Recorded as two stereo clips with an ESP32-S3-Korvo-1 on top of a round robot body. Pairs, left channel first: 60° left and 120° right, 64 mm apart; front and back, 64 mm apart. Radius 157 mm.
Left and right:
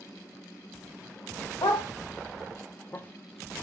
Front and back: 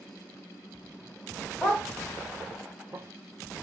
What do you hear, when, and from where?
1.6 s a dog barking: 80° left, 1.3 m; by 3.6 s 165° left, 0.6 m